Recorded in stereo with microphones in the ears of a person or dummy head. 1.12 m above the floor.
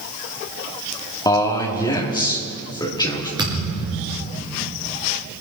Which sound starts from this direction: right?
A thud, at 3.4 s.